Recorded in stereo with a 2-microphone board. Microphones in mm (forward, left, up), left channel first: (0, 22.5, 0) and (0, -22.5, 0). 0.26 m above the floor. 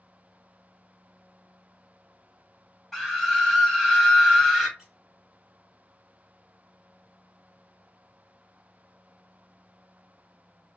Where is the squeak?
15° right (ahead or behind), 1.2 m.